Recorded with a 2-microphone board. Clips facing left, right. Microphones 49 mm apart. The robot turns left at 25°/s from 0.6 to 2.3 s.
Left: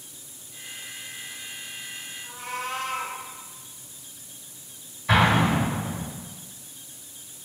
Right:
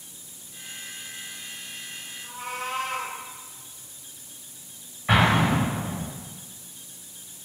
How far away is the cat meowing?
About 0.7 m.